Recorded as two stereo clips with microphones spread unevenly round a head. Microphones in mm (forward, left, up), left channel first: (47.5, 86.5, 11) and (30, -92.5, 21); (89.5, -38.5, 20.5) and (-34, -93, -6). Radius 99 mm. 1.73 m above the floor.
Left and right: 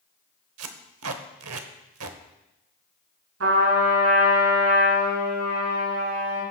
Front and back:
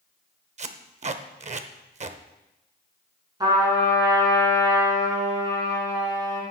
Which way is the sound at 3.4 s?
95° right.